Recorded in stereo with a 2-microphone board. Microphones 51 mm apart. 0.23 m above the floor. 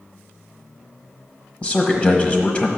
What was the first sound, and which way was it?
A man speaking, 25° left (ahead or behind).